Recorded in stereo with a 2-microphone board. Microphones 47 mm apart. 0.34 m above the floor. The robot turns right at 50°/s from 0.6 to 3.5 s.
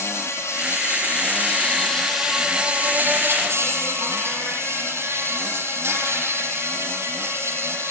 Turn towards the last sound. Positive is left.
turn(degrees=-110)